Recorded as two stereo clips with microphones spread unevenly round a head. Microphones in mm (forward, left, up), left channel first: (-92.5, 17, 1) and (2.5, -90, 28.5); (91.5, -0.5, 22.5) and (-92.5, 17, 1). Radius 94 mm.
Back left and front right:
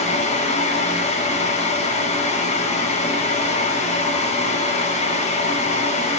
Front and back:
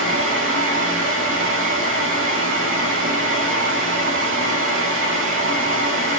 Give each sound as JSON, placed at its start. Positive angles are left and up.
{"t": 0.0, "sound": "a fan", "azimuth_deg": 165, "distance_m": 1.1}